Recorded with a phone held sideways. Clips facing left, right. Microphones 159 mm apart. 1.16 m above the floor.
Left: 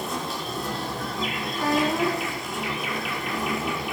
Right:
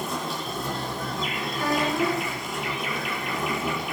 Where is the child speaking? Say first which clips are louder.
Left 2 dB; 30° left (ahead or behind), 8 m.